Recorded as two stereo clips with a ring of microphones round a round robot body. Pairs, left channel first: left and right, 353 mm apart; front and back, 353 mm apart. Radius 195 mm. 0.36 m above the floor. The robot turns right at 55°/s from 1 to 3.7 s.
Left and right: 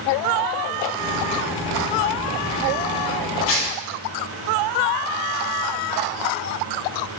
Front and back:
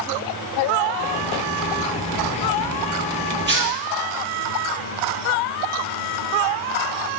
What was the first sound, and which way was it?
Tearing paper, 120° left.